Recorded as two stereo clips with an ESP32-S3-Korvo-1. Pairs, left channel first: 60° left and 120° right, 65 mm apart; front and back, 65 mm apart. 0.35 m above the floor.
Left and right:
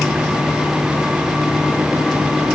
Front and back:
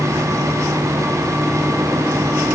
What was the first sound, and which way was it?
Only background noise.